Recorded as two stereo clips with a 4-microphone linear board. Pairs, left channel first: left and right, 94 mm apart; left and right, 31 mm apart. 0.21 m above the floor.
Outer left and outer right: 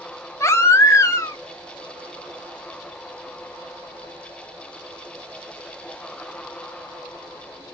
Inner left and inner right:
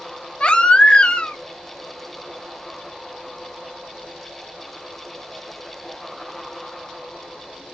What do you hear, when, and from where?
0.4 s a baby crying: 30° left (ahead or behind), 0.6 m